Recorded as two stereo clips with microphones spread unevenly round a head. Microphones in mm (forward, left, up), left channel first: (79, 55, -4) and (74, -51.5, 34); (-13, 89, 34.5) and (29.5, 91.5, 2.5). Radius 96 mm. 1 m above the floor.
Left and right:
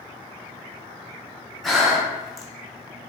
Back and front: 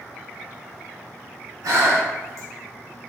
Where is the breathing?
30° right, 0.6 m.